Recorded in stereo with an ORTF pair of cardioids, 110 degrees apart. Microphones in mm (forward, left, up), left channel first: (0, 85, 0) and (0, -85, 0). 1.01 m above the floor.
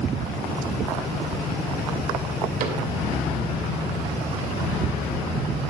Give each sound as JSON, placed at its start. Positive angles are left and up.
{"t": 2.6, "sound": "a cupboard door", "azimuth_deg": -55, "distance_m": 2.5}